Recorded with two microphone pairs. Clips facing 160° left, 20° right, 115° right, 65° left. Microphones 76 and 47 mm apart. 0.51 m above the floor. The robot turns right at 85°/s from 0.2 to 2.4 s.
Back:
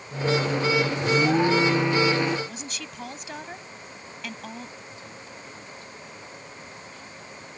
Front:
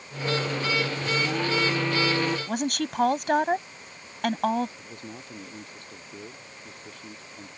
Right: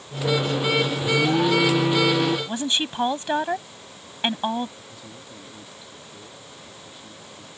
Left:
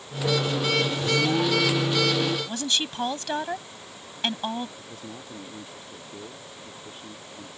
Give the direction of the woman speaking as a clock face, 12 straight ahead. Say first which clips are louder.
Front 11 dB, right 3 dB; 2 o'clock.